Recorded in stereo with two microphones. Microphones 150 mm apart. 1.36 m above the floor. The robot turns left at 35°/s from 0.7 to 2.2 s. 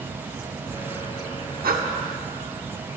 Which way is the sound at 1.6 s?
80° right.